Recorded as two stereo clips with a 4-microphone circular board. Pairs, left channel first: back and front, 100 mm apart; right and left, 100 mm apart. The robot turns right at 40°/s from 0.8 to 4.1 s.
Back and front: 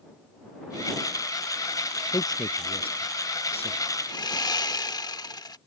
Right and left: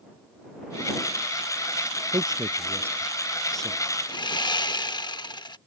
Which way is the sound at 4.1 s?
135° right.